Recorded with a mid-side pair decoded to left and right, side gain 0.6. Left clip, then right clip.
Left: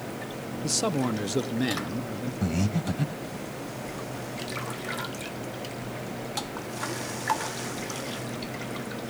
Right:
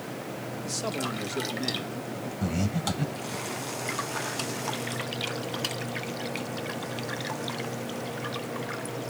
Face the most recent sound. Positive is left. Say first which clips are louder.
# even
turn(degrees=20)